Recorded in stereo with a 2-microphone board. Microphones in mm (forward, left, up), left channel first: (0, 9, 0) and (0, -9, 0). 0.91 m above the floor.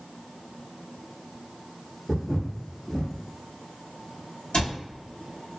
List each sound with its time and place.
2.1 s footsteps: 45° left (ahead or behind), 1.2 m
4.5 s a cupboard door: 65° left (ahead or behind), 1.0 m